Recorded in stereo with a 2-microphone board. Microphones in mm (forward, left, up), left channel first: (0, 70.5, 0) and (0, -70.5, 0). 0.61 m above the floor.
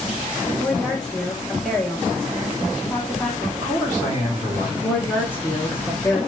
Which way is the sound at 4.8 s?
15° left (ahead or behind).